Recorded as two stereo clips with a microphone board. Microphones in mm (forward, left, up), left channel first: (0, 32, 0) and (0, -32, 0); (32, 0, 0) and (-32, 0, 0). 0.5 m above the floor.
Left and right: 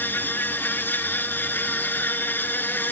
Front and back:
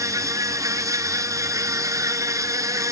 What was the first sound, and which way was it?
An insect, 150° left.